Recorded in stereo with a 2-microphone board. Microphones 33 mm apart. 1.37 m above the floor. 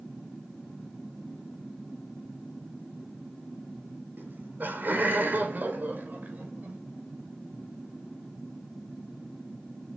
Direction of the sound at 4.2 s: 75° right (ahead or behind).